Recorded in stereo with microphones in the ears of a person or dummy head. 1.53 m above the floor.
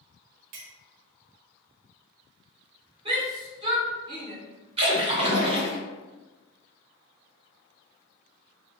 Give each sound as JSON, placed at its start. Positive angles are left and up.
{"t": 0.5, "sound": "a clink", "side_deg": -45, "distance_m": 0.6}
{"t": 3.0, "sound": "a shout", "side_deg": -30, "distance_m": 1.9}
{"t": 4.8, "sound": "a splash", "side_deg": -30, "distance_m": 1.2}